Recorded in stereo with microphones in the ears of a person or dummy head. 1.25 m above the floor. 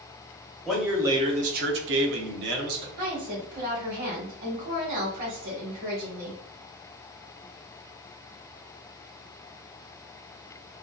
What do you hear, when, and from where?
0.7 s a man speaking: centre (ahead or behind), 0.6 m; by 2.9 s 55° right (ahead or behind), 1.0 m
3.0 s a woman speaking: 50° right (ahead or behind), 1.0 m